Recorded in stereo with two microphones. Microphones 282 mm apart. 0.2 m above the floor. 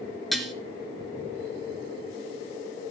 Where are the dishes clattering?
Centre (ahead or behind), 1.9 m.